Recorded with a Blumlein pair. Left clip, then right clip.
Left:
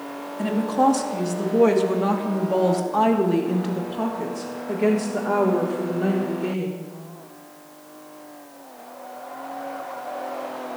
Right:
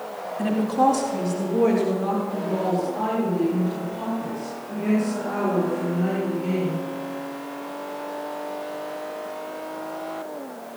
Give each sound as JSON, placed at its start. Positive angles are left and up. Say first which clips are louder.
{"t": 0.4, "sound": "a woman speaking", "louder": "even", "azimuth_deg": 0, "distance_m": 3.0}